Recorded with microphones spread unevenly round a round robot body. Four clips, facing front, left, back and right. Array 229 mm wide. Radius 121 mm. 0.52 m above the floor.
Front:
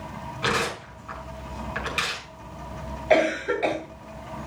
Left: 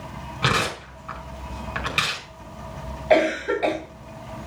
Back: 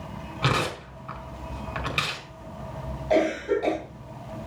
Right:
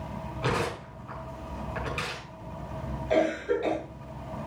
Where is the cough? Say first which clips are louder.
Left 6 dB, front 1 dB; 60° left, 3 m.